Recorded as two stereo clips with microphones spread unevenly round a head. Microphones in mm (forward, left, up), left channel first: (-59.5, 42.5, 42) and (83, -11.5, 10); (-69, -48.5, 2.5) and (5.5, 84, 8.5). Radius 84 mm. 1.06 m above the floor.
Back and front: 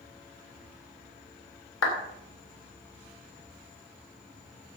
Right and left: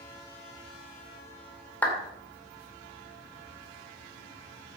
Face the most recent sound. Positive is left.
turn(degrees=160)